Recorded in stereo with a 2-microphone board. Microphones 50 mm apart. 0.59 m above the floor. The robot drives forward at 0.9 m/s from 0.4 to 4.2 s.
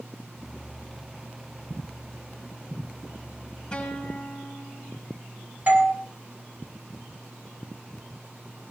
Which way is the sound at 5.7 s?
35° right (ahead or behind).